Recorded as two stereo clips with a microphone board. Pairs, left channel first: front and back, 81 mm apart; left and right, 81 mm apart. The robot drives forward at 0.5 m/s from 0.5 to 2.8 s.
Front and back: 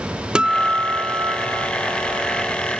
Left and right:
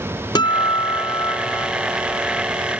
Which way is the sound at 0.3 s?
100° left.